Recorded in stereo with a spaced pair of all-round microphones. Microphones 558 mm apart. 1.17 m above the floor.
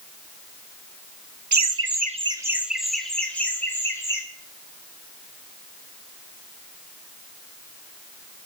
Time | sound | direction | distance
1.5 | laughter | 35° right (ahead or behind) | 0.5 m